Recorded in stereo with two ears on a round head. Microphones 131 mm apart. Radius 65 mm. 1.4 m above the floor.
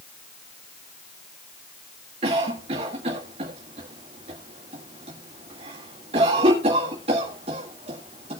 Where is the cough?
40° right (ahead or behind), 2.0 m.